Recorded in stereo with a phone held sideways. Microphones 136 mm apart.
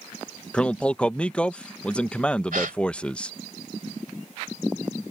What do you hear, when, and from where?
0.5 s a man speaking: 10° left (ahead or behind)
2.5 s a gasp: 80° right